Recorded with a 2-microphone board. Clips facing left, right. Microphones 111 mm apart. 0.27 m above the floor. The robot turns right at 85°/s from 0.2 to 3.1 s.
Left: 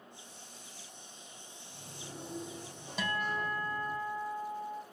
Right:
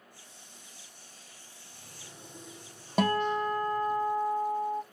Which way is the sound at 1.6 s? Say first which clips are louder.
Left 5 dB; 10° left.